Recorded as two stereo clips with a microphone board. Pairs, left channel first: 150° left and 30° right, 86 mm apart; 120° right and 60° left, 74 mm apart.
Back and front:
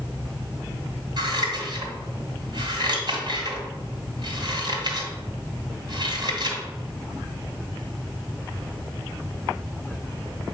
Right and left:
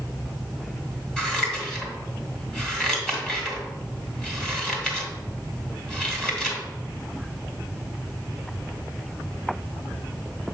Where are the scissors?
40° right, 1.9 m.